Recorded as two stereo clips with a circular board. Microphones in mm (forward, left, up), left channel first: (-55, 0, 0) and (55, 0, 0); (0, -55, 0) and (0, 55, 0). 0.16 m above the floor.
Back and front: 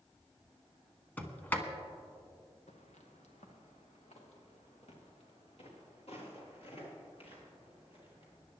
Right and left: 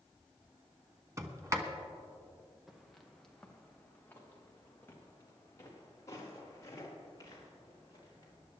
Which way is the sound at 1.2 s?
120° left.